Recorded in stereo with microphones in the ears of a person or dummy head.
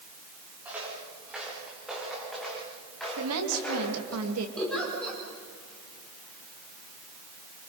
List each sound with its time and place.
0.7 s footsteps: 5° right (ahead or behind), 7 m; by 4.2 s 10° left (ahead or behind), 7 m
3.2 s a woman speaking: 85° right, 3 m
4.6 s a giggle: 5° left (ahead or behind), 5.5 m